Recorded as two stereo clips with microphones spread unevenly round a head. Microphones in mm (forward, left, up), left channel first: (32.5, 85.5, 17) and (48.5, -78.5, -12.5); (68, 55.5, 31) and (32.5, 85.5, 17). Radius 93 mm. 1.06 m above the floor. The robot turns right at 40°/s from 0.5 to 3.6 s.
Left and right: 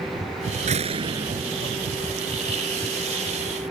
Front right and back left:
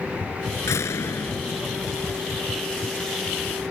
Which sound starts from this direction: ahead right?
A door slam, at 0.7 s.